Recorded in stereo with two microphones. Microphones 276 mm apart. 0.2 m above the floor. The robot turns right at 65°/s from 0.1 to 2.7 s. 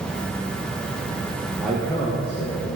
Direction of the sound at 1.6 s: 5° right.